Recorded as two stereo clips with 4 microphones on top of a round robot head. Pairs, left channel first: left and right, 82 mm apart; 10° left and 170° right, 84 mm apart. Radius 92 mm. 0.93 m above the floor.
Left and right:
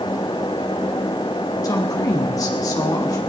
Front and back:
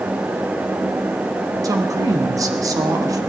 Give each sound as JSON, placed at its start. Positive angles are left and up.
{"t": 1.6, "sound": "a woman speaking", "azimuth_deg": 140, "distance_m": 1.7}